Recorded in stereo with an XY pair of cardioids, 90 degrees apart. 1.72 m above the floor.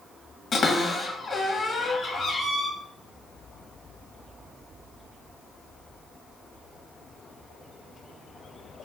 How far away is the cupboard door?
About 1.9 m.